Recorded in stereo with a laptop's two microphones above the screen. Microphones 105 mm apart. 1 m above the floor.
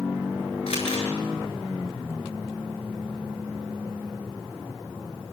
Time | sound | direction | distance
0.7 | crumpling | 80° left | 7.5 m